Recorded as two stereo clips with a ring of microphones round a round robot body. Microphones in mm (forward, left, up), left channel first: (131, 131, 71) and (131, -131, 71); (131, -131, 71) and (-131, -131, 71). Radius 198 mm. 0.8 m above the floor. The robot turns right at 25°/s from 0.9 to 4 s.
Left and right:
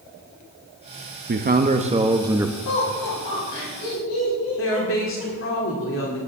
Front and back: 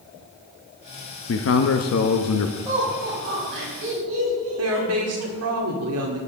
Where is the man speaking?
35° right, 0.9 m; by 2.5 s 5° right, 0.9 m.